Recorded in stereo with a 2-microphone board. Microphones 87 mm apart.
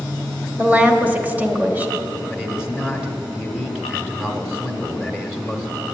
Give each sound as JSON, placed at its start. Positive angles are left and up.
{"t": 0.6, "sound": "a woman speaking", "side_deg": -20, "distance_m": 1.0}
{"t": 2.3, "sound": "a man speaking", "side_deg": -5, "distance_m": 1.2}